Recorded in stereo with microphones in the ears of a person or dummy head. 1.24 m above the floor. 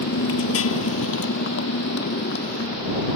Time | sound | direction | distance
0.0 | a motorcycle | 65° left (ahead or behind) | ?